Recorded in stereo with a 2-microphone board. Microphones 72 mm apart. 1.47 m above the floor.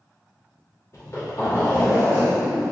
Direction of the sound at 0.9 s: 40° left (ahead or behind).